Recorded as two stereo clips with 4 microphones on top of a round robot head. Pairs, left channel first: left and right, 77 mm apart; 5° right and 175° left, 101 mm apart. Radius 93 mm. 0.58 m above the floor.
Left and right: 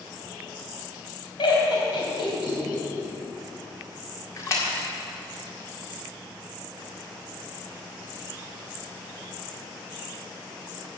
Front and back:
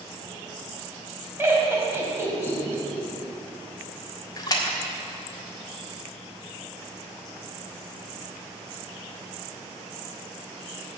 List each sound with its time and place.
1.4 s laughter: 110° left, 3.5 m
4.4 s a splash: 40° left, 1.8 m